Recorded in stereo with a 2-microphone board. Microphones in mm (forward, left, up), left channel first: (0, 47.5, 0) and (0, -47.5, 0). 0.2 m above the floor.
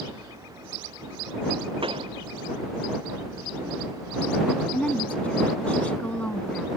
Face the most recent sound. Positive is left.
turn(degrees=15)  # may be behind; listen again after turning